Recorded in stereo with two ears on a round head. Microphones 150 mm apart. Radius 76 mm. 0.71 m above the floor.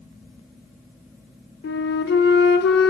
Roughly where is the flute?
Left.